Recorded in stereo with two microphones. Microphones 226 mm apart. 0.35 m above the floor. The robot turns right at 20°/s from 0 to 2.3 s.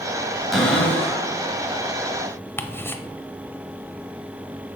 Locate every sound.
0.5 s a cupboard door: centre (ahead or behind), 1.9 m; by 1.2 s 15° left (ahead or behind), 1.9 m
2.6 s ticking: 10° left (ahead or behind), 0.6 m